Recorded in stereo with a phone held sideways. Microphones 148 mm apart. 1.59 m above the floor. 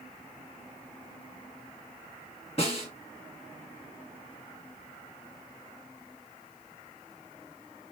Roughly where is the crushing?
I don't hear crushing.